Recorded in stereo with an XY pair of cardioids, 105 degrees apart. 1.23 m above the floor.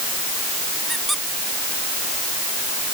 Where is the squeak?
10° right.